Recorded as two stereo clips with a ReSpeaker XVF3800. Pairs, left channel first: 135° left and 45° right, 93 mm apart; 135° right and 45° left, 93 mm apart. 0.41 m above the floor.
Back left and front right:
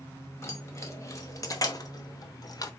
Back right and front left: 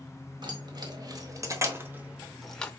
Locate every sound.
0.4 s keys jangling: 75° left, 1.4 m; by 2.7 s 155° left, 0.7 m